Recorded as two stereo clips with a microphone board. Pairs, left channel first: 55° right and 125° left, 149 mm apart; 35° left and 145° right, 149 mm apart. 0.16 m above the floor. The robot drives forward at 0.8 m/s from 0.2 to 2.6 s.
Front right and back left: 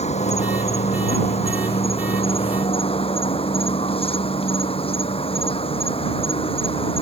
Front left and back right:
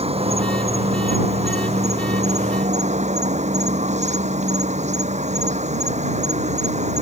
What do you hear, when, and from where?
0.0 s an insect: 100° right; by 7.0 s 105° right